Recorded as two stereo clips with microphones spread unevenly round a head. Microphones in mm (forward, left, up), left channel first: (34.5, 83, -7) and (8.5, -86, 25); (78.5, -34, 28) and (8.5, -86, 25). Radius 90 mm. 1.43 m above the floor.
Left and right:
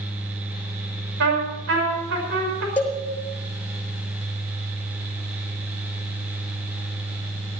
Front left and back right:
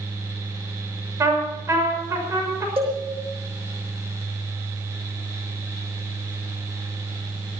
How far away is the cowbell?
About 6 m.